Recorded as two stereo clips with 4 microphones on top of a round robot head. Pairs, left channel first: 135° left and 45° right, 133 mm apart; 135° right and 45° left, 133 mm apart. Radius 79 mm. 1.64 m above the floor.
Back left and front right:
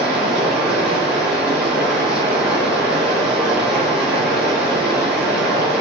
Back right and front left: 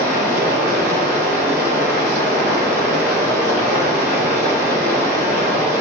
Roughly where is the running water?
Ahead left.